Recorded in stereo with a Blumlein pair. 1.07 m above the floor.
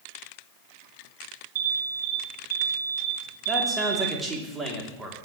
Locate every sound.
1.6 s an alarm: 55° right, 1.3 m
3.5 s a man speaking: 10° right, 3 m